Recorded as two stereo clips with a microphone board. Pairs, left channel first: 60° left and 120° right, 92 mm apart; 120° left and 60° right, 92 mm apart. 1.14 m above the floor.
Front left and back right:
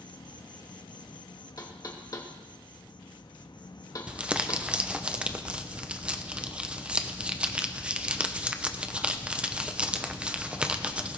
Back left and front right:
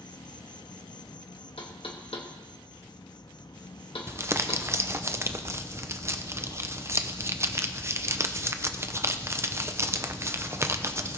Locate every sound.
0.0 s an insect: 85° left, 0.8 m
1.6 s knocking: 105° left, 1.8 m
4.1 s crumpling: 55° right, 0.7 m